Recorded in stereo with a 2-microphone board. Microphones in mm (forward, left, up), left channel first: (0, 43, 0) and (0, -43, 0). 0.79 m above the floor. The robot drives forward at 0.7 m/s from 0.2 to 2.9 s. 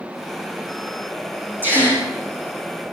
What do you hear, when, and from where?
1.6 s a gasp: 25° right (ahead or behind), 8 m; by 2.0 s 20° right (ahead or behind), 8.5 m